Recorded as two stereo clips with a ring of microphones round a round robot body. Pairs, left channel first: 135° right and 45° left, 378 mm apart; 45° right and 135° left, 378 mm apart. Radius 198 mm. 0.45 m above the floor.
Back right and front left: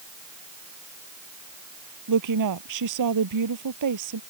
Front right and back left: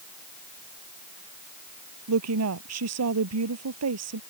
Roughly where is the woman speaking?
Left.